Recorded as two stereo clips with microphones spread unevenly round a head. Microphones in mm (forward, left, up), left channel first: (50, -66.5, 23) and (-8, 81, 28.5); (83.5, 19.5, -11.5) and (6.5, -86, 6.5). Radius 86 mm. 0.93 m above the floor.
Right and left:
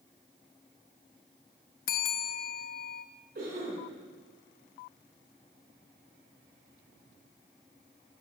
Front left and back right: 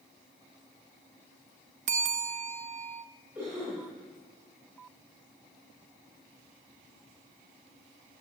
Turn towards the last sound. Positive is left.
turn(degrees=160)